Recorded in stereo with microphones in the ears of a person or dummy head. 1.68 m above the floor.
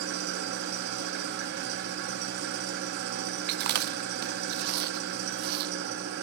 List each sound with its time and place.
0.0 s an engine running: 60° right (ahead or behind), 2.5 m
3.5 s chewing: 55° right (ahead or behind), 0.7 m